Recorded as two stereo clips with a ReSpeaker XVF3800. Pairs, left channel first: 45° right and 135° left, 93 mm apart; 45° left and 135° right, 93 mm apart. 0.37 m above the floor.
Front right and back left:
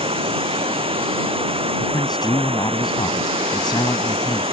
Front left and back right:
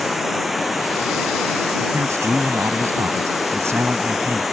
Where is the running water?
135° left.